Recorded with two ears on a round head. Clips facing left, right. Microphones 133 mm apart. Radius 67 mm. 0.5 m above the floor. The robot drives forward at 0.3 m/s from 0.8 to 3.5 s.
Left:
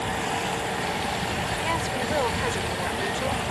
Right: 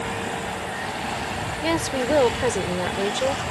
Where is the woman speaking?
50° right (ahead or behind); by 3.4 s 45° right (ahead or behind).